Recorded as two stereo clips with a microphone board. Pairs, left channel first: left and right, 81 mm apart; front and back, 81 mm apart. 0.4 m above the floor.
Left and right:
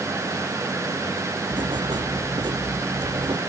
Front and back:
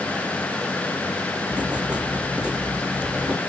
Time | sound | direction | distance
1.5 | writing | 105° right | ?